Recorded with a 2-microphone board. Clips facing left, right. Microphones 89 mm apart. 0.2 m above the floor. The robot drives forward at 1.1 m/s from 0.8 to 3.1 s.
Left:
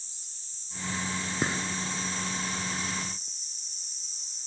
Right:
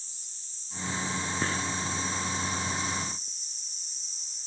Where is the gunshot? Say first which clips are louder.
Left 2 dB; 15° left (ahead or behind), 2.0 m.